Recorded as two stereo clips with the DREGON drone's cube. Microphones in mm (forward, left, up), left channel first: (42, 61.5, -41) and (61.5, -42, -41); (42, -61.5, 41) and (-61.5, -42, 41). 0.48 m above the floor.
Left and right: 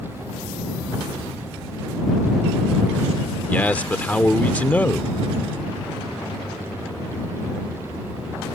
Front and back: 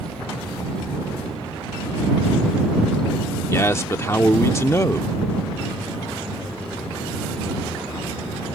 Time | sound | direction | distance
3.5 | a man speaking | 35° left | ?